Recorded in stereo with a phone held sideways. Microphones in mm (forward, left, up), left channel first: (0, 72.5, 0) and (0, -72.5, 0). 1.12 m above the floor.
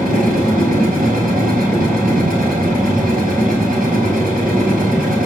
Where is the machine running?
85° right, 3.5 m.